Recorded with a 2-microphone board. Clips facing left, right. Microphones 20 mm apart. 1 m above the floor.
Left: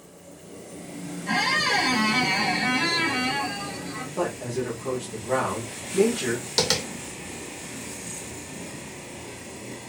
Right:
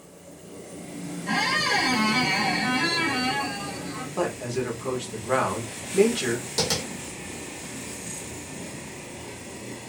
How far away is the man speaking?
About 1.3 m.